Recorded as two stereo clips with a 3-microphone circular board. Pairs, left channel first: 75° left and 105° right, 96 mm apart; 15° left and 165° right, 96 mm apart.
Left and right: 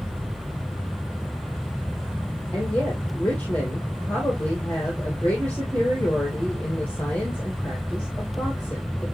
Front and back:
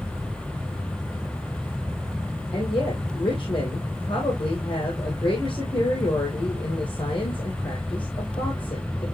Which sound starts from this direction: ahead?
A woman speaking, at 2.5 s.